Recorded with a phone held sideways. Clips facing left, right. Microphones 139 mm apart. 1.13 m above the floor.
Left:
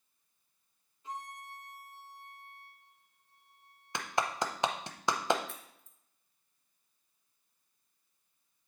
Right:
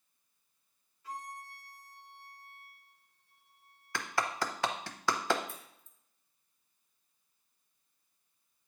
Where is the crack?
70° left (ahead or behind), 1.3 m.